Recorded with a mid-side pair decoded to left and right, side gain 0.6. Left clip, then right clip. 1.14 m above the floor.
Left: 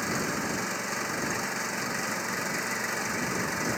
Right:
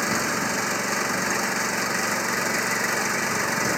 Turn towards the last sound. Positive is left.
turn(degrees=-35)